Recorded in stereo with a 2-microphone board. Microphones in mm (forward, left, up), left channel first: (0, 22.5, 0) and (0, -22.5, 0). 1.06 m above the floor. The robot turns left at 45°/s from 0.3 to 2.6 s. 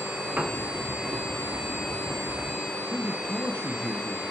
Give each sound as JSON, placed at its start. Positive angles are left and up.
{"t": 0.4, "sound": "a piano", "side_deg": -35, "distance_m": 1.3}
{"t": 2.9, "sound": "a man speaking", "side_deg": -40, "distance_m": 0.9}